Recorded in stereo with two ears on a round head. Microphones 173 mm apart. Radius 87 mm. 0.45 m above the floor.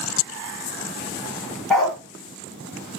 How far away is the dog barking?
About 1.6 m.